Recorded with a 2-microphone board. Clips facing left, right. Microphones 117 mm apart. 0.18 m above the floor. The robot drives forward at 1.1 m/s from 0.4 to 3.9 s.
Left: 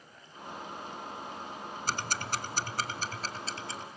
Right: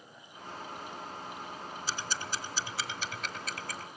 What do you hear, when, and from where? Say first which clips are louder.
1.9 s ticking: left 4 dB; 50° left (ahead or behind), 1.1 m; by 3.9 s 25° left (ahead or behind), 2 m